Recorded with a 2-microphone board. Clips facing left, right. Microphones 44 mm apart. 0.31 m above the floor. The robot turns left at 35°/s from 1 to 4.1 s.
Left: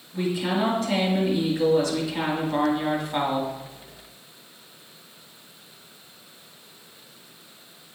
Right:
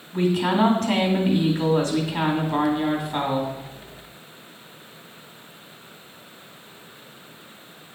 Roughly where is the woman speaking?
Right.